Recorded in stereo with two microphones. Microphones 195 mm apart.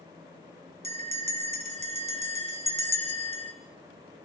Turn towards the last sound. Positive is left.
turn(degrees=-30)  # may be behind; listen again after turning